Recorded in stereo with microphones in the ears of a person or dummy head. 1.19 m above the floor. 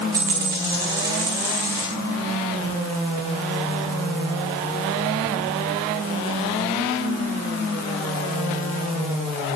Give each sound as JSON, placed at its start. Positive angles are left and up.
{"t": 0.1, "sound": "a dropped coin", "side_deg": -10, "distance_m": 0.7}